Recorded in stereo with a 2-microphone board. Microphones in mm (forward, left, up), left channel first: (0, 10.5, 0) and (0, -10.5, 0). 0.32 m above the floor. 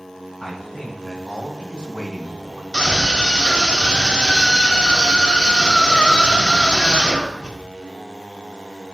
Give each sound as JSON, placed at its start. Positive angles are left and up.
{"t": 0.4, "sound": "a man speaking", "side_deg": 45, "distance_m": 2.5}
{"t": 2.7, "sound": "a scream", "side_deg": 45, "distance_m": 1.7}